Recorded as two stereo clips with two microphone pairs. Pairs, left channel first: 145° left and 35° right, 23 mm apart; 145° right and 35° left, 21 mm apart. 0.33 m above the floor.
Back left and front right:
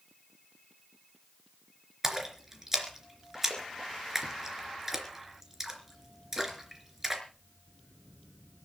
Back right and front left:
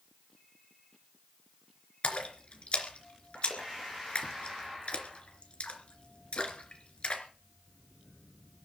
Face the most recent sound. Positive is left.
turn(degrees=-110)